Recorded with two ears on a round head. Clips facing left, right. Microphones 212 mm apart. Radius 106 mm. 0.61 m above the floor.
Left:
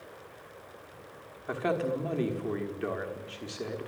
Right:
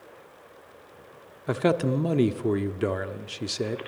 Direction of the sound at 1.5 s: 55° right (ahead or behind).